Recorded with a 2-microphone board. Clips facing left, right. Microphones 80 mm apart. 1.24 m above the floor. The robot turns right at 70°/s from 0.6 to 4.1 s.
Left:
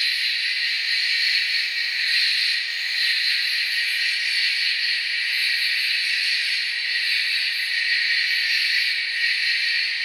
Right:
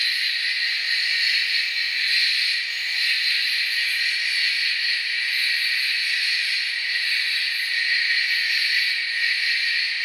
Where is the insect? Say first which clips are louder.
Even; 65° right, 1.3 m; by 10.1 s straight behind, 1.3 m.